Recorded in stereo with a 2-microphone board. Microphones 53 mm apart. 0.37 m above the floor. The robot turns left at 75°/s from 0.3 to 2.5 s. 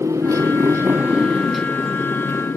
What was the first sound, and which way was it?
A motorcycle, 90° right.